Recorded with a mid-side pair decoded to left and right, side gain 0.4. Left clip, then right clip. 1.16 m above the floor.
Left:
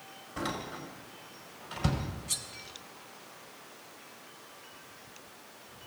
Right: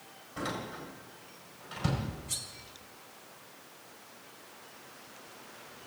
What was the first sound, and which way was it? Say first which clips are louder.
A door slam: left 1 dB; 40° left.